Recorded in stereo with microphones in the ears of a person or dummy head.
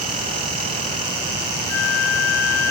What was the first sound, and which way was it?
A flute, 80° left.